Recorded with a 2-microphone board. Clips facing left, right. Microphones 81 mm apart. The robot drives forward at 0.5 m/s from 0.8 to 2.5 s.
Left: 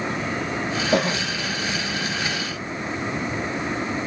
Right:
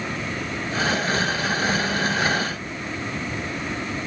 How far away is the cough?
About 3.5 m.